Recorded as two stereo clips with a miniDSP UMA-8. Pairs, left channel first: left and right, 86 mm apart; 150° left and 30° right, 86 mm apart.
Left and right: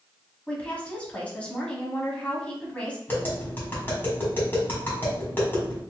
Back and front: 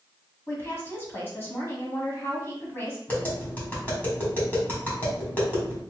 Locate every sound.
0.5 s a woman speaking: 140° left, 1.1 m
3.1 s tapping: 105° left, 1.5 m